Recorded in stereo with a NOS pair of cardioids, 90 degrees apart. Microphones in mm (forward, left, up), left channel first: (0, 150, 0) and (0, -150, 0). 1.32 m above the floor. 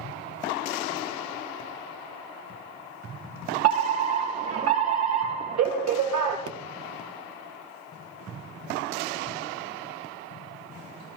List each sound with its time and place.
3.6 s a fire alarm: 60° right, 4.5 m
6.5 s a pop: 50° right, 1.2 m